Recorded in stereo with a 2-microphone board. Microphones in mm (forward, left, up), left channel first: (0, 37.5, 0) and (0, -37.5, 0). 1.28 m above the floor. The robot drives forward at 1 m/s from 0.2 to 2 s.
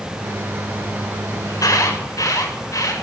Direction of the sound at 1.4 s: 55° left (ahead or behind).